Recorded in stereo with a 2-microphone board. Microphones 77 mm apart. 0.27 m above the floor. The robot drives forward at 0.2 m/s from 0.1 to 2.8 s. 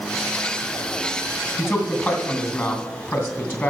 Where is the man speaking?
30° left (ahead or behind), 2.5 m.